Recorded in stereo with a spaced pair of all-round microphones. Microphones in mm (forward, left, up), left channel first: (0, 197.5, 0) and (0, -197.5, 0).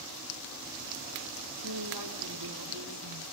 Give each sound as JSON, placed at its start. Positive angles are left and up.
{"t": 1.6, "sound": "a woman speaking", "side_deg": -70, "distance_m": 3.0}